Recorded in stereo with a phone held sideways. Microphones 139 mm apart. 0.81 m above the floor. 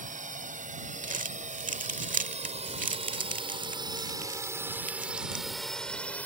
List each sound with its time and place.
0.0 s a drone: 75° right (ahead or behind); by 6.3 s 10° left (ahead or behind)
1.0 s crumpling: 80° right